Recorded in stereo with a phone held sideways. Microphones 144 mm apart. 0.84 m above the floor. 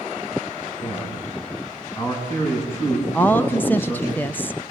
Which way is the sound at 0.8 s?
15° left (ahead or behind).